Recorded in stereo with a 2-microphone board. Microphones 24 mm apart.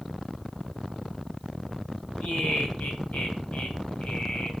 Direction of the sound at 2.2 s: 75° left (ahead or behind).